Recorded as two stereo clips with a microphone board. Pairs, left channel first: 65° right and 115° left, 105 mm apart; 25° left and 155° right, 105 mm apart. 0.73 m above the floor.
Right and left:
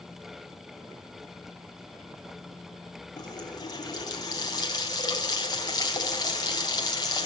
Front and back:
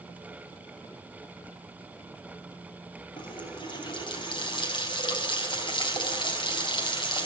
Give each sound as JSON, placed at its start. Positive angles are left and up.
{"t": 3.2, "sound": "a running tap", "azimuth_deg": -20, "distance_m": 4.0}